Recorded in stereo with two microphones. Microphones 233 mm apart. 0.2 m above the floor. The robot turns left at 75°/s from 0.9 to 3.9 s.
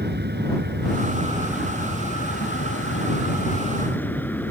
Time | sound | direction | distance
0.0 | an aircraft | 125° right | ?